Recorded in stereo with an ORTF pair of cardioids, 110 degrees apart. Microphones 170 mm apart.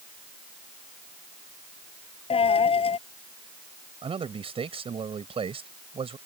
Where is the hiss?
No hiss in this recording.